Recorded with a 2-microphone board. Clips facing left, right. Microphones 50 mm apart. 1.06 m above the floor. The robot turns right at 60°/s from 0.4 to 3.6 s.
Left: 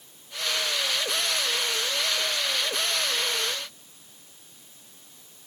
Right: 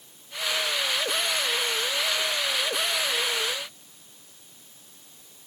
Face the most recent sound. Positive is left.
No sound to turn to.